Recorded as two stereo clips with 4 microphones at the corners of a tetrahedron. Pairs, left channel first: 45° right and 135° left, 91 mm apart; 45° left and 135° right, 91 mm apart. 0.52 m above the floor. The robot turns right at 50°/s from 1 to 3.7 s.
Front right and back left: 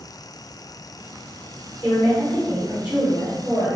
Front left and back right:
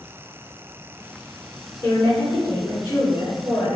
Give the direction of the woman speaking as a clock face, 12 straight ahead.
12 o'clock.